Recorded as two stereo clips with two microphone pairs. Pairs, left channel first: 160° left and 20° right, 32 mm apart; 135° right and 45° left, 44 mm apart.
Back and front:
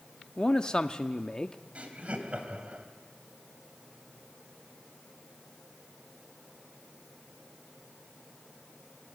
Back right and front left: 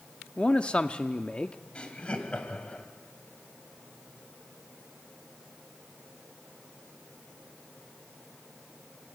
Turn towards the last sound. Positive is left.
turn(degrees=-70)